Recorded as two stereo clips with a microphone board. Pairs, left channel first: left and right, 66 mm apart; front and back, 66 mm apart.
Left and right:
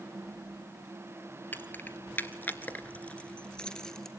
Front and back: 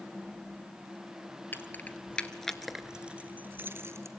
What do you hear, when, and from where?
1.5 s keys jangling: 40° left, 1.2 m; by 4.1 s 170° left, 1.2 m